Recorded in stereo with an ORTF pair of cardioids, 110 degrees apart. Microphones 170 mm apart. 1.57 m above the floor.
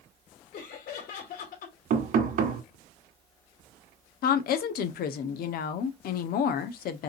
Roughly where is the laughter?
Ahead left.